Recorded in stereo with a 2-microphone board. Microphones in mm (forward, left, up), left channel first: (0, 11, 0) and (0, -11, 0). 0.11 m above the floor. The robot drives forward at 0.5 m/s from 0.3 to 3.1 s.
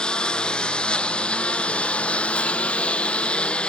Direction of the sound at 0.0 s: 50° left (ahead or behind).